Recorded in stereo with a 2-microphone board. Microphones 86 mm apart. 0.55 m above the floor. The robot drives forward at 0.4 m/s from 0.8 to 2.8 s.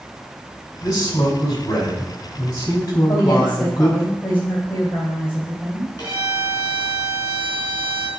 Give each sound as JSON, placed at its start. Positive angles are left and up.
{"t": 0.8, "sound": "a man speaking", "side_deg": 40, "distance_m": 4.0}
{"t": 3.1, "sound": "a woman speaking", "side_deg": 25, "distance_m": 2.5}
{"t": 6.0, "sound": "a violin", "side_deg": 40, "distance_m": 4.0}